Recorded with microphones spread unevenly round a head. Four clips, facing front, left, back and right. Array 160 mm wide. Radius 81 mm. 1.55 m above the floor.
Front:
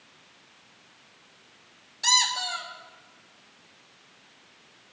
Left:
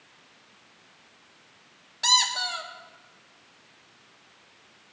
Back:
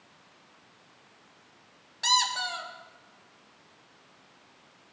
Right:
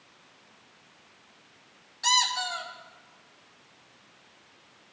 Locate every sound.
2.0 s a squeak: 120° left, 1.5 m